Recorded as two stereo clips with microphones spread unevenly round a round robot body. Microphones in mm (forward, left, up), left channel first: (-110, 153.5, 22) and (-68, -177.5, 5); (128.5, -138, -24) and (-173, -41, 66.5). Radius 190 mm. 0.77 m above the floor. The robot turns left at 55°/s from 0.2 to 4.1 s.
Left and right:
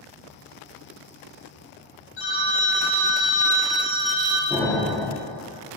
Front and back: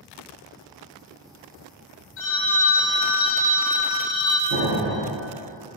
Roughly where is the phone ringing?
Ahead left.